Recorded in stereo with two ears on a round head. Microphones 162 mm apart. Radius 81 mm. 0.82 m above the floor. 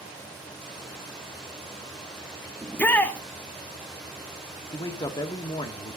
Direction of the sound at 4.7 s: 25° left (ahead or behind).